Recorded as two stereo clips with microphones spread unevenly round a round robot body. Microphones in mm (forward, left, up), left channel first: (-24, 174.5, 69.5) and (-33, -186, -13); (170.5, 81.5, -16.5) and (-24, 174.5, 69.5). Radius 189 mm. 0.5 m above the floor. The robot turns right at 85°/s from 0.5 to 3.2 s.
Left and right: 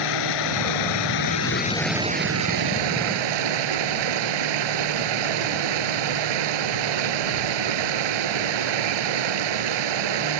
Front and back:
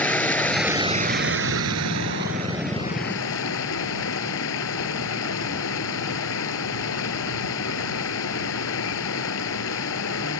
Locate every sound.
0.0 s running water: 60° left; by 10.4 s 70° right